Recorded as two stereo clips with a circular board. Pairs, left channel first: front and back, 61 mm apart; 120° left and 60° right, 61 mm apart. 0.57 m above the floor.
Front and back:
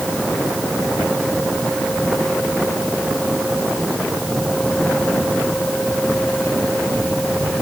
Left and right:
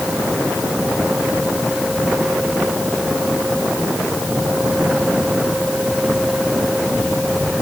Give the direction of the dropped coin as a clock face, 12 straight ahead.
I don't hear a dropped coin.